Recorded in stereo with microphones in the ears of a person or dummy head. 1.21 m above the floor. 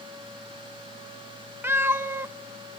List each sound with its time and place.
1.6 s a cat meowing: 20° right (ahead or behind), 1.0 m